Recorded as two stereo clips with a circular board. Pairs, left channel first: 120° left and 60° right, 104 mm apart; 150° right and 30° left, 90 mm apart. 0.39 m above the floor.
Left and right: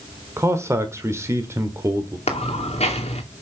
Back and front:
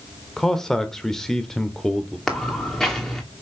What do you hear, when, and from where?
0.4 s a man speaking: 70° right, 1.0 m
2.3 s footsteps: 130° left, 2 m